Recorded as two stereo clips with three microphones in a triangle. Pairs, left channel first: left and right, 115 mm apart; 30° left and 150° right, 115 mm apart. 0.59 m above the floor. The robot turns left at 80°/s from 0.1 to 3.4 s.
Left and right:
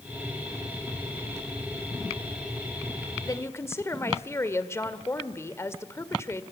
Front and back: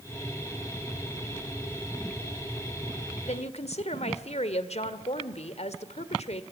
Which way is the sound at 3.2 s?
35° left.